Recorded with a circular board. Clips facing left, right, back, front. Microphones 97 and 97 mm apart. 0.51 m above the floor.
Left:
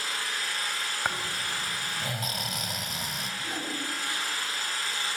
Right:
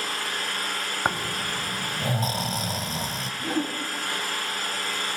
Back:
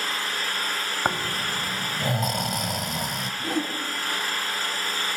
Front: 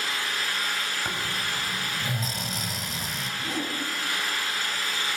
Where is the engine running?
130° right, 4 m.